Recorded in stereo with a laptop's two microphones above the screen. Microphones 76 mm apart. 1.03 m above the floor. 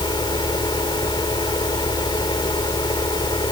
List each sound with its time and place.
0.0 s a fan: 80° left